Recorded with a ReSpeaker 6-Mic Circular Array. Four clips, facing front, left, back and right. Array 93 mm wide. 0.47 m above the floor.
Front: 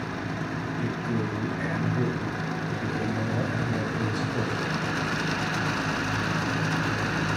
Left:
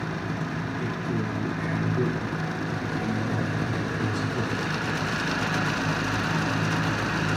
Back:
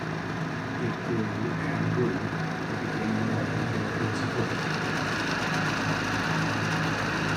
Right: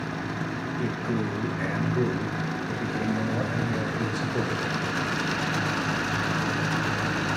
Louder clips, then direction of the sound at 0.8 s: Right 3 dB, back 1 dB; 80° right.